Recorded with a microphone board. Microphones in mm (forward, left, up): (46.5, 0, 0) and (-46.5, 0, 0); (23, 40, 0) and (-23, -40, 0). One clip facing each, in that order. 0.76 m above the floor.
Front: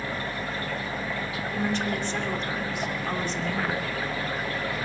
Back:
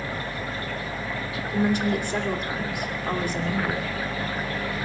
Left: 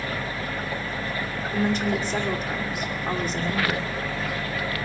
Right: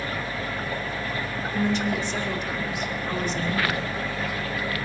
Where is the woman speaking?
105° left, 2.5 m.